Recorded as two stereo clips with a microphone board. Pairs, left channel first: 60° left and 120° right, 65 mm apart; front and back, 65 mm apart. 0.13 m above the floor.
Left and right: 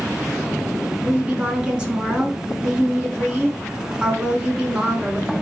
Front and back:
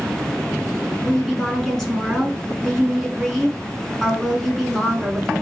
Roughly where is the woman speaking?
Right.